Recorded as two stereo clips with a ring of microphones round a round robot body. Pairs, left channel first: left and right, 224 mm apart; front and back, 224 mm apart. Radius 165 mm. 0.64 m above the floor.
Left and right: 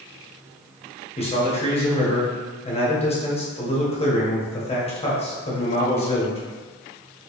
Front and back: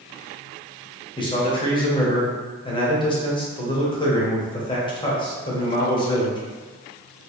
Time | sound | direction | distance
1.2 | a man speaking | 50° left | 1.2 m